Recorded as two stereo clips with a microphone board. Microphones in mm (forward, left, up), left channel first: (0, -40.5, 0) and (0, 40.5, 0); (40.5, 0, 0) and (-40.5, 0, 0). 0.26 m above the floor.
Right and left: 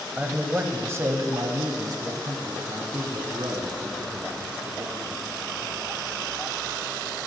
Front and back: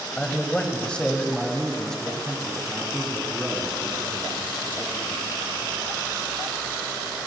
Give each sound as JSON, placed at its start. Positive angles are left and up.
{"t": 0.2, "sound": "a man speaking", "azimuth_deg": 40, "distance_m": 0.9}